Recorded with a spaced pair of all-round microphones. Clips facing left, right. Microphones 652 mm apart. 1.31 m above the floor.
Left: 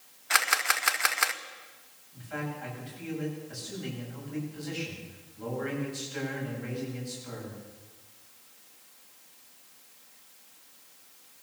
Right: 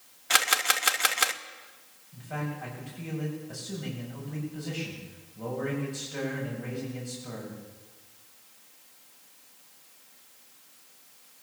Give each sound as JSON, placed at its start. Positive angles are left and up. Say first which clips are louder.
{"t": 0.3, "sound": "a camera shutter", "louder": "right 3 dB", "side_deg": -60, "distance_m": 0.9}
{"t": 2.1, "sound": "a man speaking", "louder": "right 1 dB", "side_deg": -70, "distance_m": 8.0}